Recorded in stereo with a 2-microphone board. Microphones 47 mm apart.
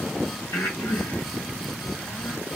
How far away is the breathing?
About 2 m.